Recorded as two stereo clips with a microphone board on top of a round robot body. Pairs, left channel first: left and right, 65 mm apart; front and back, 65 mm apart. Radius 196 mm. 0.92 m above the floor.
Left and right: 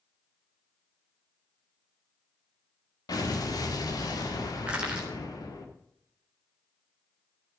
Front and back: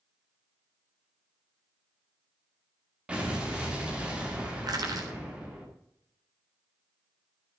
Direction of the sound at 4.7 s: 165° right.